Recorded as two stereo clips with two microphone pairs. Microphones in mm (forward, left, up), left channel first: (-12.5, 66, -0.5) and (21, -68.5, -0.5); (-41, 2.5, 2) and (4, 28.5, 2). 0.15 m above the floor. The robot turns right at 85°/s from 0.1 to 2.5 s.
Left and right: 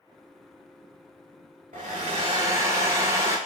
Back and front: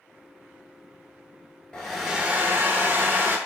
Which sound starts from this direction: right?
A hair dryer, at 1.7 s.